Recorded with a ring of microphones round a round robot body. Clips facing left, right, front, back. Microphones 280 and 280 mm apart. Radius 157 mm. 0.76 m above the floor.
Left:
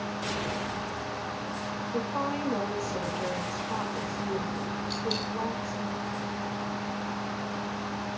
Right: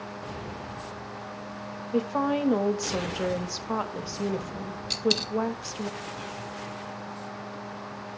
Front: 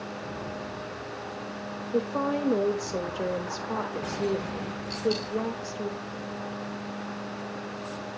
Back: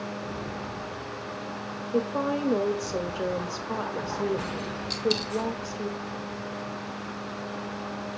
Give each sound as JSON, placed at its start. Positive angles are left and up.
{"t": 1.9, "sound": "a woman speaking", "azimuth_deg": -85, "distance_m": 1.3}
{"t": 4.9, "sound": "a dropped coin", "azimuth_deg": -125, "distance_m": 1.1}